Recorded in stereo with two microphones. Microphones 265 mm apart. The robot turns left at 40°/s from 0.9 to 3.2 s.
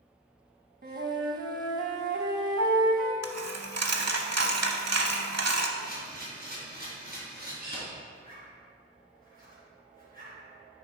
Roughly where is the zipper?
Right.